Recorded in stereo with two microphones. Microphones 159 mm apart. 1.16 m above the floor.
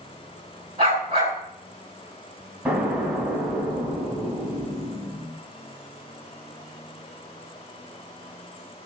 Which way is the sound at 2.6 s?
10° right (ahead or behind).